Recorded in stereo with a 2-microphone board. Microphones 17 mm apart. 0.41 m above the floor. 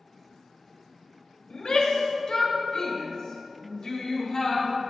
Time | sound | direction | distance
1.5 | a shout | 50° left (ahead or behind) | 1.8 m